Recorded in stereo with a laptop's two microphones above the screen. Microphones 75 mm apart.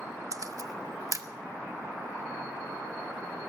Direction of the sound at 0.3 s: 50° right (ahead or behind).